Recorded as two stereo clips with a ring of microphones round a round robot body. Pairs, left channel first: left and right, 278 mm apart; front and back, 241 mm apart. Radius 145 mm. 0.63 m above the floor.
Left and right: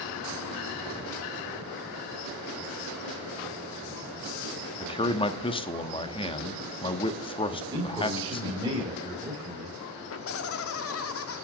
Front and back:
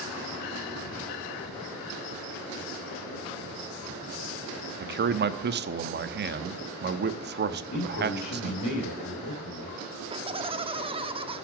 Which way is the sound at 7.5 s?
15° right.